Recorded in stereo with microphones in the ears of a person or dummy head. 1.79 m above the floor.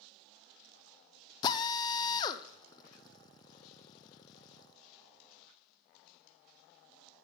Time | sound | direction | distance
1.4 | a drill | 30° left (ahead or behind) | 0.6 m